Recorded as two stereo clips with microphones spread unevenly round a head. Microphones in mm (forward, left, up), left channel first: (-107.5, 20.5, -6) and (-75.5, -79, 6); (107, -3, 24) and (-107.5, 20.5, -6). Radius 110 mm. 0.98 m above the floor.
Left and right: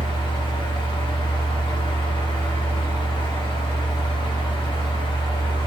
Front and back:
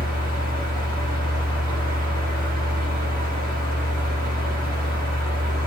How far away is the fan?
About 4 m.